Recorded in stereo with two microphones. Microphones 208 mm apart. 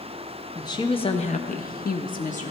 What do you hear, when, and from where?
0.6 s a woman speaking: 20° left (ahead or behind), 1.1 m; by 2.5 s 35° left (ahead or behind), 1.0 m